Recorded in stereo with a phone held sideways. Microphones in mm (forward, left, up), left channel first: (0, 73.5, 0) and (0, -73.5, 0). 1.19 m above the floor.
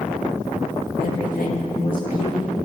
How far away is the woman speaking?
About 1.7 m.